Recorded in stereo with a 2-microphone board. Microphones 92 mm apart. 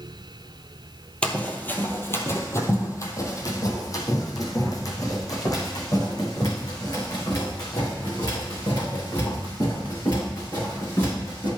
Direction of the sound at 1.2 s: 10° left (ahead or behind).